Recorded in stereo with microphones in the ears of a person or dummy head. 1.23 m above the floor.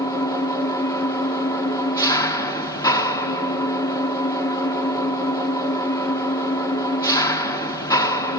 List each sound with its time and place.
0.0 s an engine running: 20° left (ahead or behind), 1.8 m